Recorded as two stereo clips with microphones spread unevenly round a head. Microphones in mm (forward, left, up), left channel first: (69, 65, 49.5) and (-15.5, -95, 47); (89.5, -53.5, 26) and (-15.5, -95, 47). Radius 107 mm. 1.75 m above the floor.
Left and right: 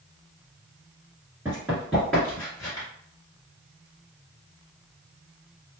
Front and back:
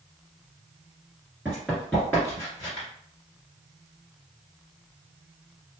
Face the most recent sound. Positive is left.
turn(degrees=25)